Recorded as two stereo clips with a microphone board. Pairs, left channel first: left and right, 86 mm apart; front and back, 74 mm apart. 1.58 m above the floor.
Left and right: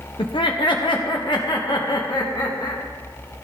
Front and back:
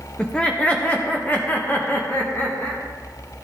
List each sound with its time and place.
0.2 s laughter: 80° left, 1.0 m; by 2.8 s 55° left, 2.5 m